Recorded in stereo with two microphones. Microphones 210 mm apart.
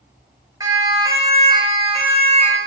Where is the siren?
15° right (ahead or behind), 7.5 m; by 2.6 s 30° right (ahead or behind), 6.5 m.